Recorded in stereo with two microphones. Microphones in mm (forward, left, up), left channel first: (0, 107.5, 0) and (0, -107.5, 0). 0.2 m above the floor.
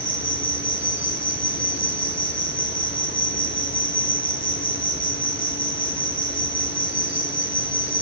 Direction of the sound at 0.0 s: 65° left (ahead or behind).